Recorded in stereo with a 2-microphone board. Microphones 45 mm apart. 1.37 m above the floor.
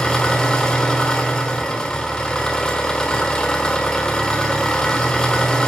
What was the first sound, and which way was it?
An engine running, 15° left (ahead or behind).